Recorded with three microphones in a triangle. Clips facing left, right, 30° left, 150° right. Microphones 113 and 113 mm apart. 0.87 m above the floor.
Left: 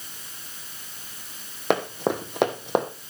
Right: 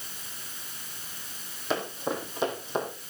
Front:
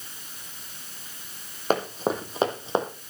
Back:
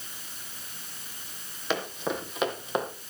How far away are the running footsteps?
About 2.5 m.